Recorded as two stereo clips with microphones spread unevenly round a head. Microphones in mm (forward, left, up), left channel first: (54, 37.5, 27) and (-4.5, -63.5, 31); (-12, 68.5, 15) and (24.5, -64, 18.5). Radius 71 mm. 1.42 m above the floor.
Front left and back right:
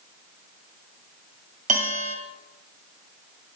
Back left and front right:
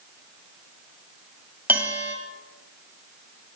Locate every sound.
1.7 s a bell: 150° right, 2 m